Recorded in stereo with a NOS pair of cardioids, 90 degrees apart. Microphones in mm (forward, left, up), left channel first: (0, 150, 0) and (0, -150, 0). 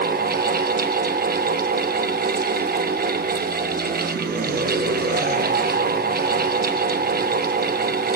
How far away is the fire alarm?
No fire alarm in this recording.